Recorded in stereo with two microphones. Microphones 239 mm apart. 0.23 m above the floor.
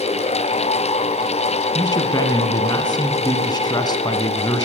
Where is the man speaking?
15° left (ahead or behind), 2.5 m.